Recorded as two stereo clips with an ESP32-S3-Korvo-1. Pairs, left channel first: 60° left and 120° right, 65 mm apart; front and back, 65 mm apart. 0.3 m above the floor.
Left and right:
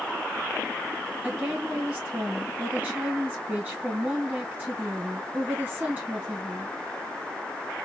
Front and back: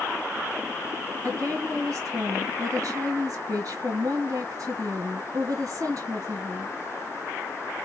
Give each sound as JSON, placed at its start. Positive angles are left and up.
{"t": 1.2, "sound": "a woman speaking", "azimuth_deg": 180, "distance_m": 1.7}